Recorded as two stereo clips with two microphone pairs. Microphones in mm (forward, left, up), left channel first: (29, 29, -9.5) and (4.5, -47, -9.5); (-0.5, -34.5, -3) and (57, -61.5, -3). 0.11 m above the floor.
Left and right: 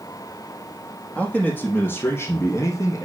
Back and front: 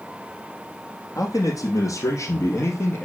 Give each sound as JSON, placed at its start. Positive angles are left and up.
{"t": 1.1, "sound": "a man speaking", "azimuth_deg": 150, "distance_m": 3.5}